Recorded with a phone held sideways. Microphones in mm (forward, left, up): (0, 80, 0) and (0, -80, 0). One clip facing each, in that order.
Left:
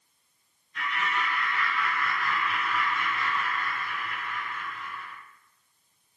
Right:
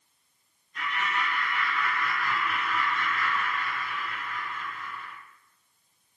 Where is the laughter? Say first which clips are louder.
Even; 30° right (ahead or behind), 1.5 m; by 5.1 s 90° left, 1.1 m.